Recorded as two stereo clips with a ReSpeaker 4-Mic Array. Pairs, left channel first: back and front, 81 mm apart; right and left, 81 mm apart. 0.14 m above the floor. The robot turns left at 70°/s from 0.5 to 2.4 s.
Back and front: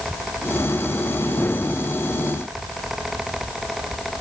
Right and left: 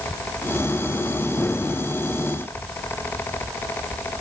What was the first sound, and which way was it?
Only background noise.